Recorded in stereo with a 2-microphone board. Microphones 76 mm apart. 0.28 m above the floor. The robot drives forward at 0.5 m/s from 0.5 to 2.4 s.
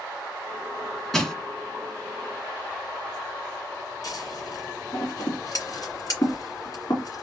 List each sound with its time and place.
1.1 s crushing: 5° left (ahead or behind), 1.3 m
4.0 s scissors: 50° left (ahead or behind), 2.5 m